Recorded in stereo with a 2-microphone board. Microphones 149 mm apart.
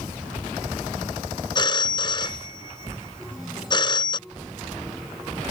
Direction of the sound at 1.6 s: 30° left (ahead or behind).